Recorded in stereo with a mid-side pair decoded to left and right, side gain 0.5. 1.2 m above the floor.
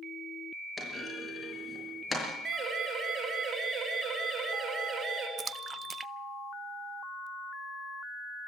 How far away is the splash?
About 0.8 m.